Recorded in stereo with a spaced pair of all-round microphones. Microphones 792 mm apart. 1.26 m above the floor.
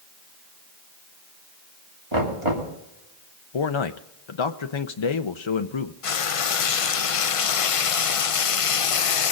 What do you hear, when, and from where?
2.1 s knocking: 35° right (ahead or behind), 3 m
3.5 s a man speaking: 40° left (ahead or behind), 0.6 m
6.0 s frying: 50° left (ahead or behind), 0.5 m